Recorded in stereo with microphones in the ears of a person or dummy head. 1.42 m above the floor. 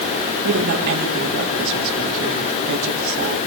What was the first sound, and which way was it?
A woman speaking, 50° right (ahead or behind).